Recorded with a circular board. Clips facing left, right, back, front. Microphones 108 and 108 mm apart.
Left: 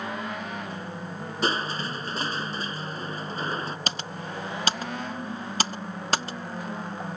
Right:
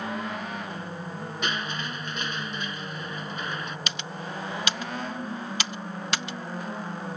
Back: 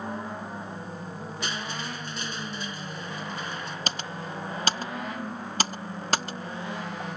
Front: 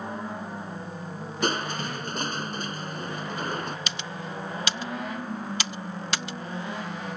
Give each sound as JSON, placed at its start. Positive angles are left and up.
{"t": 1.4, "sound": "crushing", "azimuth_deg": 35}
{"t": 3.9, "sound": "typing on a keyboard", "azimuth_deg": 135}